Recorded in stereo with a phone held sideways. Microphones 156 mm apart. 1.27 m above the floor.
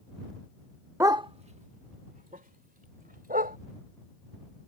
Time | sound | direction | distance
1.0 | a dog barking | 15° right (ahead or behind) | ?